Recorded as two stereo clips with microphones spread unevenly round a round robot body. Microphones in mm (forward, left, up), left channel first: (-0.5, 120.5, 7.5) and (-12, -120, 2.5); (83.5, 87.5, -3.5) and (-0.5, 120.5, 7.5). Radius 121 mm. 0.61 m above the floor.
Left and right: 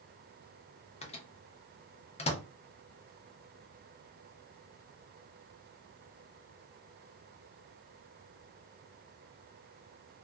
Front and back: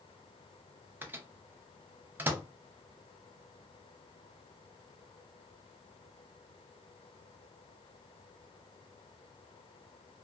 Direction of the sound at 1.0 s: 105° left.